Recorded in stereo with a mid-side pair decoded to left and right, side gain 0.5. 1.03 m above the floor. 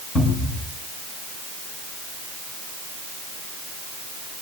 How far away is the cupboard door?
About 8.5 m.